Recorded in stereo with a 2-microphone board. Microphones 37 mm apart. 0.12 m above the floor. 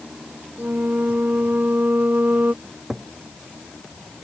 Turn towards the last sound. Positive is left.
turn(degrees=-10)  # may be behind; listen again after turning